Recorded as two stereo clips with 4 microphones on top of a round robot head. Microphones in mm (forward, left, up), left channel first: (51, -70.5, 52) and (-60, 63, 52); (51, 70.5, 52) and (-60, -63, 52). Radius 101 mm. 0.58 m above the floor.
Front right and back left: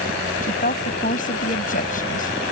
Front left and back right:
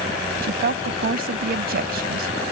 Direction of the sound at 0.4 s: 95° right.